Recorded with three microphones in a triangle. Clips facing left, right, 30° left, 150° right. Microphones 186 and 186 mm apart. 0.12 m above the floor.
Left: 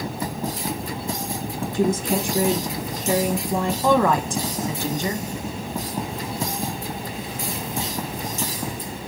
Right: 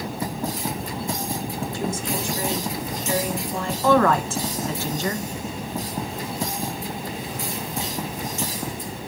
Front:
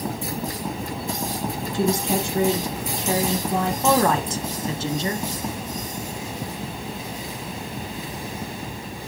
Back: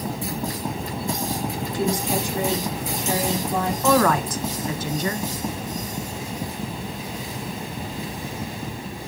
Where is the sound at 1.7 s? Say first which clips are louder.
Left 9 dB, front 2 dB; 90° left, 4 m.